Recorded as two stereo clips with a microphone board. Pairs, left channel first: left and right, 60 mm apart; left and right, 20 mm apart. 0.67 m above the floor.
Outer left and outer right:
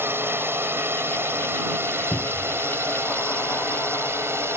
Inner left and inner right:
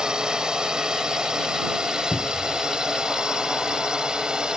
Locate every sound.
0.0 s a drone: 40° right (ahead or behind)
2.1 s a cupboard door: 45° left (ahead or behind)